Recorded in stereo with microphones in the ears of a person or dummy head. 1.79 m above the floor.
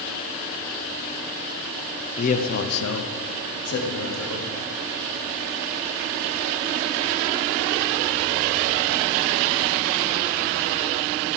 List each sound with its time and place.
2.2 s a man speaking: 40° left (ahead or behind), 0.7 m; by 4.5 s 70° left (ahead or behind), 1.4 m